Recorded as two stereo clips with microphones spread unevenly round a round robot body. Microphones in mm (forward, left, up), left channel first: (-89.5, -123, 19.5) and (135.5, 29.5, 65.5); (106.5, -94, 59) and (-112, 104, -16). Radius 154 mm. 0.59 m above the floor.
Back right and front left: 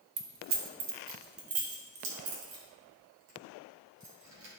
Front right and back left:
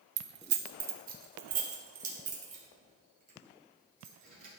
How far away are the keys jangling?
About 0.5 m.